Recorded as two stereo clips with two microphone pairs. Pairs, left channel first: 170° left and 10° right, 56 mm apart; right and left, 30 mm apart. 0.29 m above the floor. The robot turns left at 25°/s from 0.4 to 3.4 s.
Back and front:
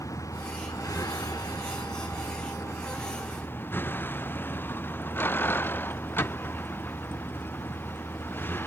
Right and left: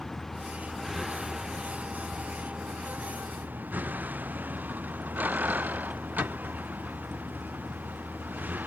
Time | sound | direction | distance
0.0 | a vehicle | 170° right | ?